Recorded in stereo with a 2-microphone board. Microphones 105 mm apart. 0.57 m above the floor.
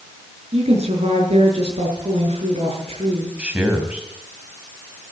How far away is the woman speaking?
About 6.5 m.